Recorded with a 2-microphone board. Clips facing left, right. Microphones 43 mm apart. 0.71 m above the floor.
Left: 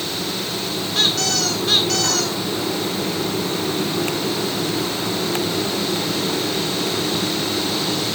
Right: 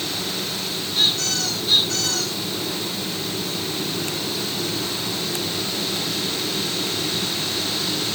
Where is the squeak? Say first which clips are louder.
Left 2 dB; 75° left (ahead or behind), 1.8 m.